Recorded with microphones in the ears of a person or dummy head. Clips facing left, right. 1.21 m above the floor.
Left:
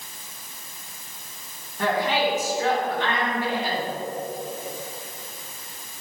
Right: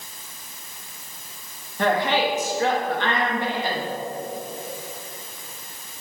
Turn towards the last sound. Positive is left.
turn(degrees=-60)  # may be behind; listen again after turning